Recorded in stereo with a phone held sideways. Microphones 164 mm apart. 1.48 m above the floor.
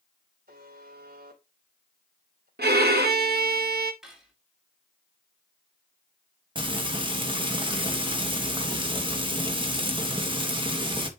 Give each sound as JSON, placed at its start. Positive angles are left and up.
{"t": 0.5, "sound": "a buzzer", "side_deg": -75, "distance_m": 3.0}
{"t": 2.6, "sound": "a violin", "side_deg": -75, "distance_m": 1.2}
{"t": 4.0, "sound": "cutlery clinking", "side_deg": -5, "distance_m": 2.5}
{"t": 6.5, "sound": "frying", "side_deg": -30, "distance_m": 1.4}